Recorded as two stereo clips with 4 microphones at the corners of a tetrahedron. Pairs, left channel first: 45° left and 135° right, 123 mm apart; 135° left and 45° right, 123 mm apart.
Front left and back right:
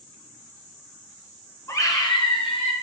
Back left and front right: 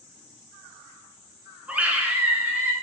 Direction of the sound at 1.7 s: 20° left.